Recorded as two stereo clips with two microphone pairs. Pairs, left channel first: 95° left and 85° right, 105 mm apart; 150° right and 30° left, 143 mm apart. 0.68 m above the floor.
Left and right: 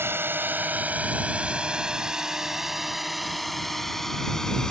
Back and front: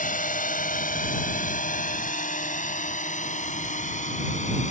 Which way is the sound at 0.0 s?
150° right.